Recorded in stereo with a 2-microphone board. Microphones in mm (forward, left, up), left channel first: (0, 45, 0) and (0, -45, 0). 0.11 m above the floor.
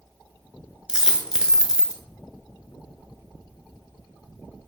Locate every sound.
0.9 s a dropped coin: 10° right (ahead or behind), 0.7 m